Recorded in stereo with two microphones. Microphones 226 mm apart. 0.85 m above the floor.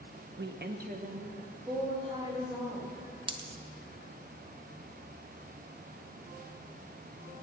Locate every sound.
0.4 s a woman speaking: 55° right (ahead or behind), 0.6 m; by 2.9 s 20° right (ahead or behind), 3 m
3.3 s a dropped coin: 20° right (ahead or behind), 0.6 m